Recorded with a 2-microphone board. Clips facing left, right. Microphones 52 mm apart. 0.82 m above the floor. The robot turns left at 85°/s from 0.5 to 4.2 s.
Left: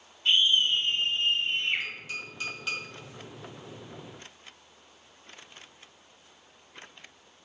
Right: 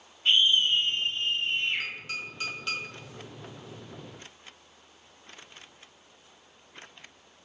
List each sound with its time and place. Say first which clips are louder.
0.2 s a scream: right 1 dB; 165° right, 1.5 m; by 1.9 s 80° left, 1.5 m
1.8 s tapping: right 1 dB; 65° right (ahead or behind), 1.7 m; by 2.8 s 15° left (ahead or behind), 1.7 m